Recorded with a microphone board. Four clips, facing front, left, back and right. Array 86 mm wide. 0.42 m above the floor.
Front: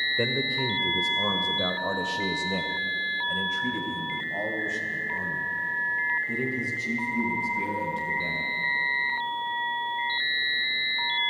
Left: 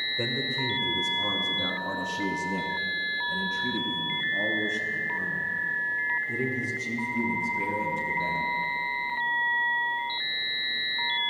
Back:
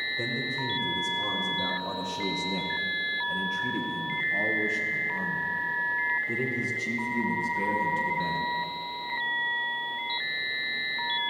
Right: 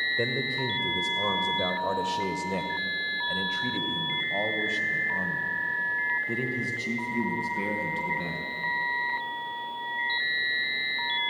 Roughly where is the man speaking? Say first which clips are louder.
Left 2 dB, front 5 dB; ahead right.